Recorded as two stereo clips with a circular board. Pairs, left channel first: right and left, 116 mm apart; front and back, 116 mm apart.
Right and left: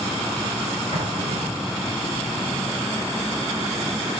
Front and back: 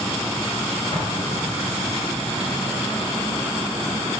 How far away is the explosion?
About 3.5 m.